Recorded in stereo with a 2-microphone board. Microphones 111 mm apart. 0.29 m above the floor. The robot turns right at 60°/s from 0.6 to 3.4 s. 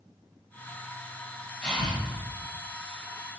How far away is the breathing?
About 1.6 m.